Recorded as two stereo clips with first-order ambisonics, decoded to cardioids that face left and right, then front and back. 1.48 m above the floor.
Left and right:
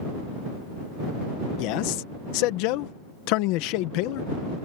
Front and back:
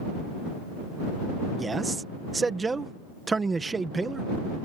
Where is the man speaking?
105° left.